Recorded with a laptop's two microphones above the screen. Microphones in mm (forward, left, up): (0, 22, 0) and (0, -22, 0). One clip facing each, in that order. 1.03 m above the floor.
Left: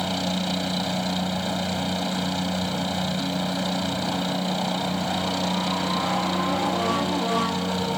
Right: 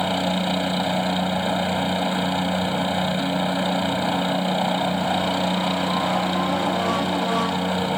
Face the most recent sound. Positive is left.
turn(degrees=-25)  # may be behind; listen again after turning